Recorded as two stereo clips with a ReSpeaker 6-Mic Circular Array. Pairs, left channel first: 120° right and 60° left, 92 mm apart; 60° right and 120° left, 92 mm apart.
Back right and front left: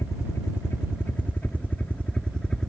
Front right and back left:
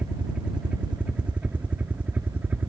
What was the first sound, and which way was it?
A helicopter, 165° right.